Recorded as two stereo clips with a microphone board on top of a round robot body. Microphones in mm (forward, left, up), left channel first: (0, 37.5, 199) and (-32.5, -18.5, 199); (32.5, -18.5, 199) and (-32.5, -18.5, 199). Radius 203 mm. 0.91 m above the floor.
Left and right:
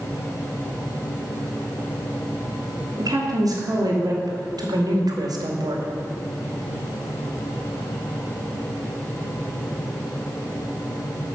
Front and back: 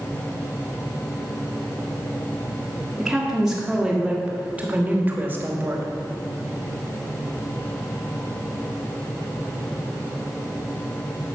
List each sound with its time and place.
3.0 s a woman speaking: 95° right, 3 m; by 5.9 s 125° right, 2 m